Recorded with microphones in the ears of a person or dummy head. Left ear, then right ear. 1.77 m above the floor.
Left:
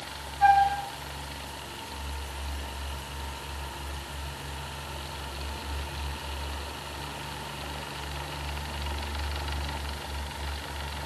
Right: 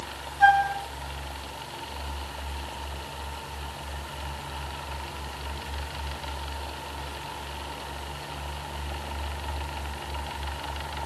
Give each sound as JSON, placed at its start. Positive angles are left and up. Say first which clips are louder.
{"t": 0.4, "sound": "a flute", "louder": "right 1 dB", "side_deg": -70, "distance_m": 5.5}